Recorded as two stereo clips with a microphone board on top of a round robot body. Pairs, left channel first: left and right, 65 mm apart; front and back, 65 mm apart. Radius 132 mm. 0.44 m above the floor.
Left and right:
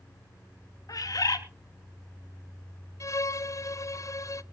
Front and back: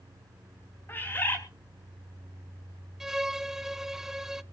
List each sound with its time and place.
0.9 s a bird: 60° left, 4.5 m
3.0 s a violin: 100° left, 0.9 m